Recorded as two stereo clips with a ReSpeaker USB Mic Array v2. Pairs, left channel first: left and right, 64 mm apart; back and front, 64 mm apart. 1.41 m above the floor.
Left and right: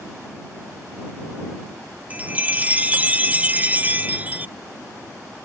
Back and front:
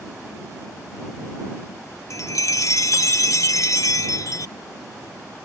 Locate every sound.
2.1 s a chime: 155° right